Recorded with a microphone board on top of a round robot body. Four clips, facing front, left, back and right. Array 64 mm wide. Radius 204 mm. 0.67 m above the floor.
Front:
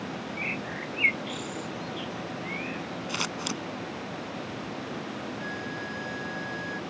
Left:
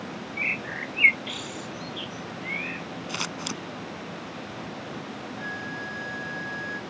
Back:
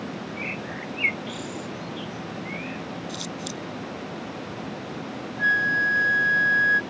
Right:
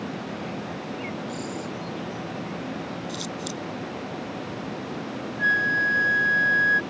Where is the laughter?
No laughter in this recording.